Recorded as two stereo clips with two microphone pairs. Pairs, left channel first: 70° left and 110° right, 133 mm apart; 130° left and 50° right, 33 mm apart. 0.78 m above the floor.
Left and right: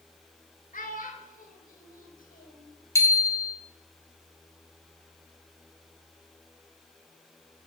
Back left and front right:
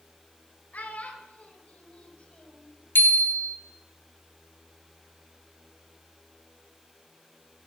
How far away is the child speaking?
About 2.5 m.